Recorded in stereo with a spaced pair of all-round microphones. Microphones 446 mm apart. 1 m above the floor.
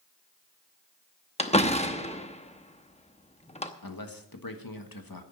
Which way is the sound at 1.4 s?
15° left (ahead or behind).